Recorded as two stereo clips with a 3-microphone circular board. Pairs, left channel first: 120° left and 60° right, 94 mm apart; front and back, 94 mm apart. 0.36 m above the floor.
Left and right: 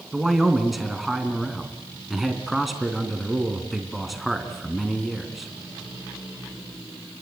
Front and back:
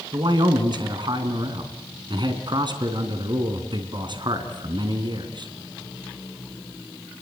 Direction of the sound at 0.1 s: 150° right.